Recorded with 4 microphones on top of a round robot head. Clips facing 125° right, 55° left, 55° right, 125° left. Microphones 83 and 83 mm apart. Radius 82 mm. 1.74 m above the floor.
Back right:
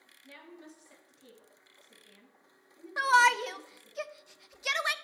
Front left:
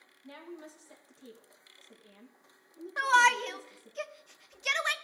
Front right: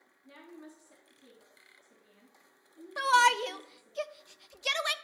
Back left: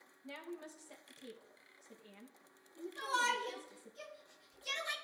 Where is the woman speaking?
115° left, 1.7 m.